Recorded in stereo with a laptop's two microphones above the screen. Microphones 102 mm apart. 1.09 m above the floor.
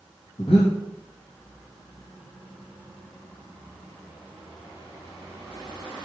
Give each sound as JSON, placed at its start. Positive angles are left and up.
{"t": 0.4, "sound": "breathing", "side_deg": 70, "distance_m": 2.0}